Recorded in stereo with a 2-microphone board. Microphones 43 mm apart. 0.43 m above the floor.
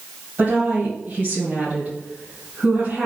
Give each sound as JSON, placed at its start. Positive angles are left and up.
{"t": 0.4, "sound": "a woman speaking", "side_deg": -55, "distance_m": 1.8}